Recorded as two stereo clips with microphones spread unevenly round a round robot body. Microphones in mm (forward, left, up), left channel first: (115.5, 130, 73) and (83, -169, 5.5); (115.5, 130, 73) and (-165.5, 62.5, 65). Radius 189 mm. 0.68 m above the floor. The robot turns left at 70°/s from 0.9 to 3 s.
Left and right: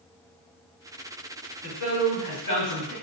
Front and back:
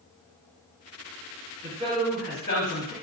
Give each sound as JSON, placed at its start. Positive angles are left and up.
{"t": 1.6, "sound": "a man speaking", "azimuth_deg": 150, "distance_m": 1.7}